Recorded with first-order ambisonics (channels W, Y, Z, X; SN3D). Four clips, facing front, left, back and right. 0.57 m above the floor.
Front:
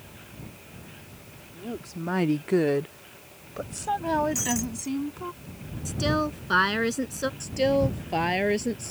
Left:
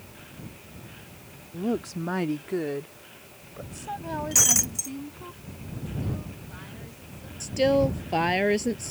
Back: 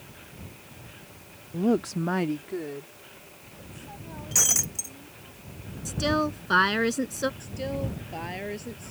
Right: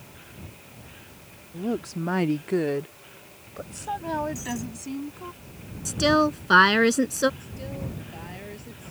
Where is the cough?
No cough in this recording.